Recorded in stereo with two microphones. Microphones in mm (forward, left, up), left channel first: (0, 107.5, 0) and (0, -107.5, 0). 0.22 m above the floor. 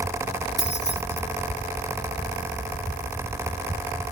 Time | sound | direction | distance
0.6 | keys jangling | 60° left (ahead or behind) | ?